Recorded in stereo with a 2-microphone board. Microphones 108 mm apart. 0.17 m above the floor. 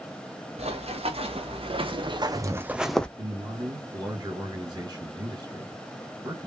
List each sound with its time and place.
0.6 s running footsteps: 70° right (ahead or behind), 1.7 m; by 3.1 s 10° left (ahead or behind), 0.6 m
3.2 s a man speaking: 40° right (ahead or behind), 2.0 m